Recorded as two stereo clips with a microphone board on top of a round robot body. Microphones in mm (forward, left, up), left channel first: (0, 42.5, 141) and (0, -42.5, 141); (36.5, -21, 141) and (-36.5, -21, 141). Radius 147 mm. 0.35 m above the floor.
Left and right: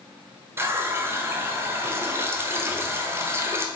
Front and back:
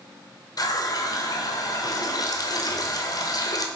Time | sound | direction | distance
0.6 | a running tap | 30° right | 1.3 m